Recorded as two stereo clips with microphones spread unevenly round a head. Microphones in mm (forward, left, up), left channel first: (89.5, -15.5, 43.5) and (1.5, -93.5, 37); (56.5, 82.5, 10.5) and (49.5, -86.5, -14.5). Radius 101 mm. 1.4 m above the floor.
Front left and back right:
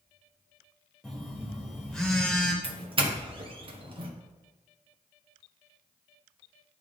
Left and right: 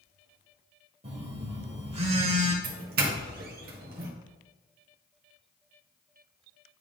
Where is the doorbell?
105° right, 1.3 m.